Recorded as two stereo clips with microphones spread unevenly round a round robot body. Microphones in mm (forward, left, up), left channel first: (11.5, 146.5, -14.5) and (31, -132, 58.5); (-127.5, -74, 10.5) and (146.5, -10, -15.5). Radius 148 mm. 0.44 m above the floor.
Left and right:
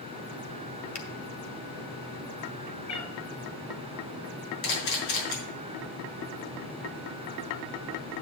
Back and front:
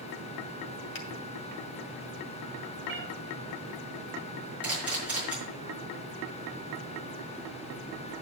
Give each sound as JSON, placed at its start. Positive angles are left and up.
{"t": 0.9, "sound": "a finger snap", "azimuth_deg": 145, "distance_m": 1.9}
{"t": 2.9, "sound": "a cat meowing", "azimuth_deg": 65, "distance_m": 1.9}
{"t": 4.6, "sound": "a camera shutter", "azimuth_deg": 100, "distance_m": 5.5}